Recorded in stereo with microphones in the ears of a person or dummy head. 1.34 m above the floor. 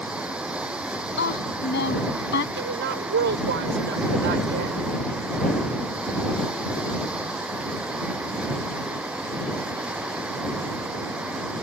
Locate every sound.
0.0 s running water: centre (ahead or behind)
1.2 s a woman speaking: 70° left (ahead or behind)
2.5 s a woman speaking: 70° right (ahead or behind)